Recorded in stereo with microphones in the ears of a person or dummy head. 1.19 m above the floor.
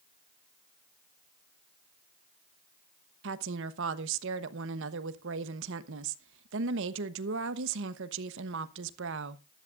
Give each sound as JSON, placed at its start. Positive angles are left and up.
{"t": 3.2, "sound": "a woman speaking", "side_deg": -75, "distance_m": 1.1}